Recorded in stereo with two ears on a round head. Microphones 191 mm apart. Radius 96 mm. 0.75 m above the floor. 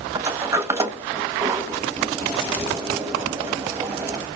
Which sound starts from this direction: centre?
A sliding door, at 0.1 s.